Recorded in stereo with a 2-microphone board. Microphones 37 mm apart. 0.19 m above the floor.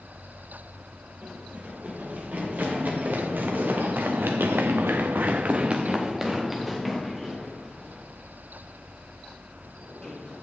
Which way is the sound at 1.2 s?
45° right (ahead or behind).